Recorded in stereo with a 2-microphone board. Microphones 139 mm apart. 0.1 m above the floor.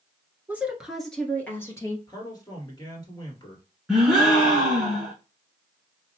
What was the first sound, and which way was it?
A woman speaking, 15° right (ahead or behind).